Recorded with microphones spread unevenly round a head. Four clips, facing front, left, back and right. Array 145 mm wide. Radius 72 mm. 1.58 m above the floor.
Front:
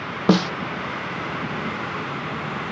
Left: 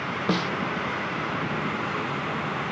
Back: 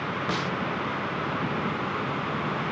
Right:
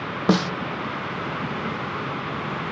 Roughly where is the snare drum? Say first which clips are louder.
Right 6 dB, front 14 dB; ahead.